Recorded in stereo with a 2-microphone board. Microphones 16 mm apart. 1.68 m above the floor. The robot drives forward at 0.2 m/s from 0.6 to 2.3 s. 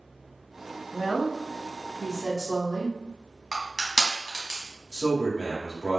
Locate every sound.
0.9 s a woman speaking: 5° left (ahead or behind), 0.7 m
3.5 s crushing: 70° right (ahead or behind), 0.8 m
4.9 s a man speaking: 10° left (ahead or behind), 0.9 m